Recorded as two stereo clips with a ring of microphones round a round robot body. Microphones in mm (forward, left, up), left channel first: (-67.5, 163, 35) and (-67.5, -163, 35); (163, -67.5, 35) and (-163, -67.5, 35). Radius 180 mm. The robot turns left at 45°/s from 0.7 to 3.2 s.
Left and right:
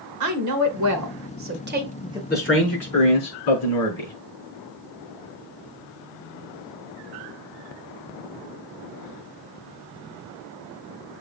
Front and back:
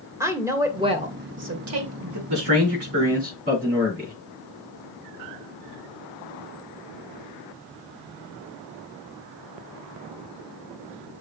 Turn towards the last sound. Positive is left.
turn(degrees=115)